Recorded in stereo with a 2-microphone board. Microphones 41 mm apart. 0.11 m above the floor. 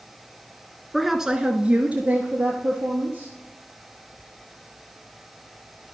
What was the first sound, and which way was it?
A woman speaking, centre (ahead or behind).